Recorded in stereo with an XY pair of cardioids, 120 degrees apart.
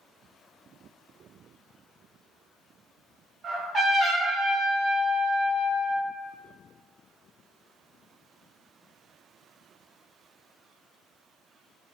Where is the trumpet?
45° right, 1.8 m.